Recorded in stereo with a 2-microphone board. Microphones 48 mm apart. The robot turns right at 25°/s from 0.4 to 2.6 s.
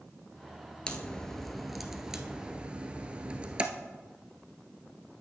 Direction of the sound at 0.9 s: 20° left (ahead or behind).